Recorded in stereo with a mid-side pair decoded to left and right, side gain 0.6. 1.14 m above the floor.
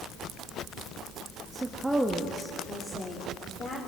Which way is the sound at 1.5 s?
25° right.